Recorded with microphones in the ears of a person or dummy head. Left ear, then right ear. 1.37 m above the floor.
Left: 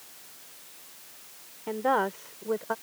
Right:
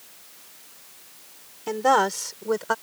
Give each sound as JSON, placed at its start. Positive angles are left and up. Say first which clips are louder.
{"t": 1.7, "sound": "a woman speaking", "louder": "right 6 dB", "side_deg": -70}